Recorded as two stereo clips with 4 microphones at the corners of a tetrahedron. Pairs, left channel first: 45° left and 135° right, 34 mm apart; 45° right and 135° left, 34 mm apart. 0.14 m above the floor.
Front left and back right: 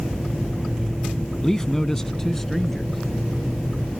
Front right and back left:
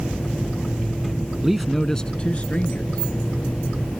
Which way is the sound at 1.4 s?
85° left.